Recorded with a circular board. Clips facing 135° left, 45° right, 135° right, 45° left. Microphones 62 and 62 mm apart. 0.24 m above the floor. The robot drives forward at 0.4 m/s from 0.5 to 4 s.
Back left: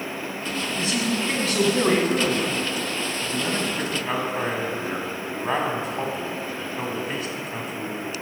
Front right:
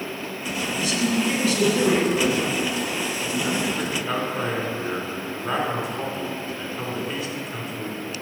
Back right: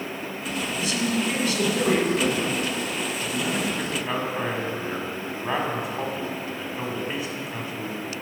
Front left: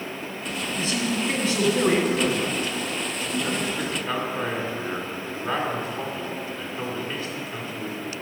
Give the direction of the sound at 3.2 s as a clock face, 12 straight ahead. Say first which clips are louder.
Front right 1 dB, even; 7 o'clock.